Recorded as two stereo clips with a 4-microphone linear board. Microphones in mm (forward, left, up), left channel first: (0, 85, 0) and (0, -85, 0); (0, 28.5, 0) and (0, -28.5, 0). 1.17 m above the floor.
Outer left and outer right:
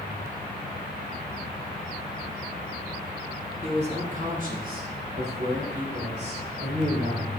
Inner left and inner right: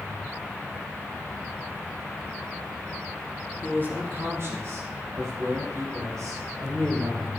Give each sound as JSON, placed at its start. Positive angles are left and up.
{"t": 3.6, "sound": "a man speaking", "side_deg": -35, "distance_m": 2.5}